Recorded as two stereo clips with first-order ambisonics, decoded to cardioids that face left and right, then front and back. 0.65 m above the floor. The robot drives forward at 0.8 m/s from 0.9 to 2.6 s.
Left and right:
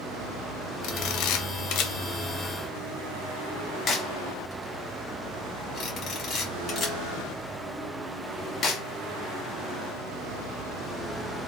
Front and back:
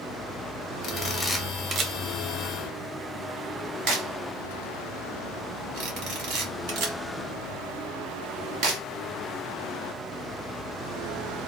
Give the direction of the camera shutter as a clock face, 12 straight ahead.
10 o'clock.